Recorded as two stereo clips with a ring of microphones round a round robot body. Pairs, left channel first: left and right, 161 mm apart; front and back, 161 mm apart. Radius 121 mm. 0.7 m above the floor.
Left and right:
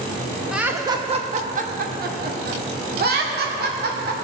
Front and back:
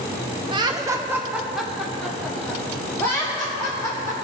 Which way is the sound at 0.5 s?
175° right.